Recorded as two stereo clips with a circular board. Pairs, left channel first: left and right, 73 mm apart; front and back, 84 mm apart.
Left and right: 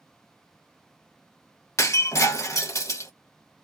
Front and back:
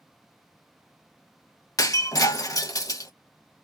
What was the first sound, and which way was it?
Breaking glass, 45° left.